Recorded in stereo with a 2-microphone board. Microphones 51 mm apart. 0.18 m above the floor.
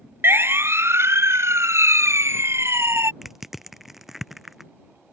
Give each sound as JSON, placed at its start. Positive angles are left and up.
{"t": 0.2, "sound": "a siren", "side_deg": -50}
{"t": 3.2, "sound": "crushing", "side_deg": -5}